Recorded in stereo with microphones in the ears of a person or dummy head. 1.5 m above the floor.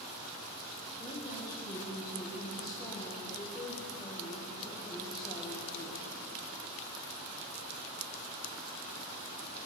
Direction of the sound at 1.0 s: 20° left (ahead or behind).